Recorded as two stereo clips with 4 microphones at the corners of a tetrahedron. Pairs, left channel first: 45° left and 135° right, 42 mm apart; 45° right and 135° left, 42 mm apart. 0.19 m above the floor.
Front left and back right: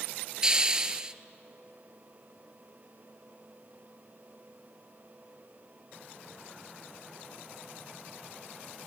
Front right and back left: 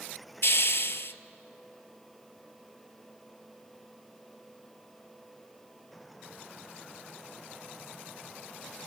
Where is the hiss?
65° right, 0.6 m.